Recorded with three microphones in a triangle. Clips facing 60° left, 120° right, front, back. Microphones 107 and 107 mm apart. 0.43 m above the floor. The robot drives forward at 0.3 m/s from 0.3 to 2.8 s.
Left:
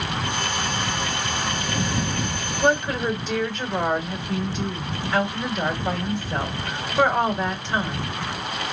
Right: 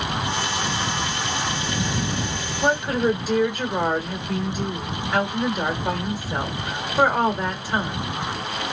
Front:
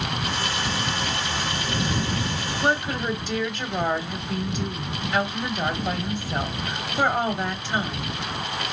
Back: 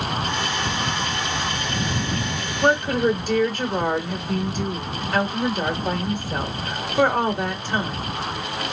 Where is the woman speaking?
155° left, 1.6 m; by 8.2 s 160° left, 1.7 m.